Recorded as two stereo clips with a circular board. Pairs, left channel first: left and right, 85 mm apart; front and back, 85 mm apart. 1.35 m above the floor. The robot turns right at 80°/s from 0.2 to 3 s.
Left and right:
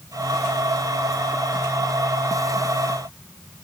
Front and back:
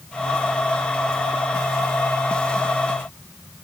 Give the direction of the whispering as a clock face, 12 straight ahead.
I don't hear whispering.